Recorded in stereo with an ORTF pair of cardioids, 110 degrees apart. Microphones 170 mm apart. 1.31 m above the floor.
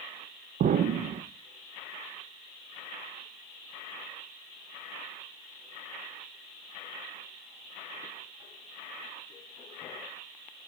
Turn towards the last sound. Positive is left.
turn(degrees=-50)